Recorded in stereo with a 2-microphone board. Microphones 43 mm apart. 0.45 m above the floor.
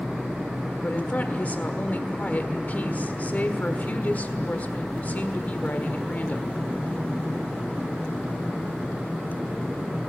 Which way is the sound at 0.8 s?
40° left (ahead or behind).